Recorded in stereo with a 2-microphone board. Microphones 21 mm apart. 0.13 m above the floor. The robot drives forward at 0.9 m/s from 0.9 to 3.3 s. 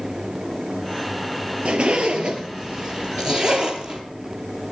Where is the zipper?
55° right (ahead or behind), 2.5 m; by 4.0 s 40° right (ahead or behind), 3 m.